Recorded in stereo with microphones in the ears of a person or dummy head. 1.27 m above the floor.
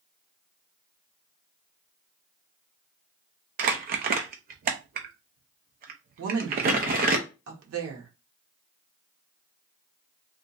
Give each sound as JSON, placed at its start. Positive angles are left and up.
{"t": 3.6, "sound": "crumpling", "side_deg": -45, "distance_m": 0.6}
{"t": 6.2, "sound": "a woman speaking", "side_deg": -80, "distance_m": 1.4}